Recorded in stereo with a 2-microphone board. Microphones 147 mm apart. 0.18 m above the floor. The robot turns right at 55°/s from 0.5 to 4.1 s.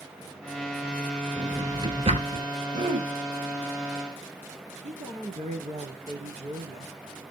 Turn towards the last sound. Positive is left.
turn(degrees=-50)  # may be behind; listen again after turning